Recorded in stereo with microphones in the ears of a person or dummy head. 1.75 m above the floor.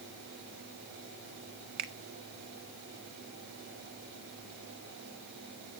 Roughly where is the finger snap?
Right.